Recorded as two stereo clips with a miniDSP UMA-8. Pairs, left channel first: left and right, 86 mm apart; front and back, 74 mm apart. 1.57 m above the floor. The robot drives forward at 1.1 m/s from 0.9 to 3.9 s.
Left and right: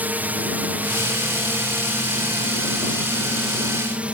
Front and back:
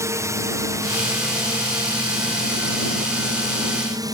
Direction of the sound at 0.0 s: 155° right.